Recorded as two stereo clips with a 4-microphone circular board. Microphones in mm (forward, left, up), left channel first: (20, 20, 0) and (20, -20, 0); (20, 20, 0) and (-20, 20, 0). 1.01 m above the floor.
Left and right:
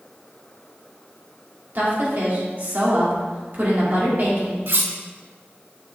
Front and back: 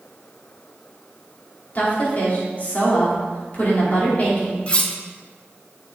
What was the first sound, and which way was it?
A woman speaking, 45° right.